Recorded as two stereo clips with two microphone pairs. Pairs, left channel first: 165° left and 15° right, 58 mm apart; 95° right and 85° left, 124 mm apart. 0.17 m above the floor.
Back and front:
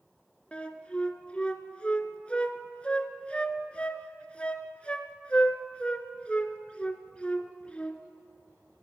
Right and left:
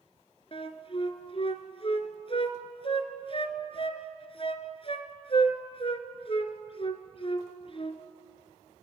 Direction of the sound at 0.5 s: 130° right.